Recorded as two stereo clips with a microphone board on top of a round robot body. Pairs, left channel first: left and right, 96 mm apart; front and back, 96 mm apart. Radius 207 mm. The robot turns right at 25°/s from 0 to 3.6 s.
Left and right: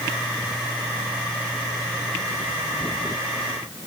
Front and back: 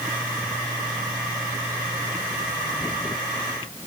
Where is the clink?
I don't hear a clink.